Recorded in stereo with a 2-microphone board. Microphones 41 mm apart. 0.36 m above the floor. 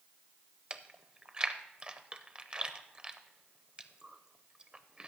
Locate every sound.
0.7 s chewing: 25° right (ahead or behind), 0.6 m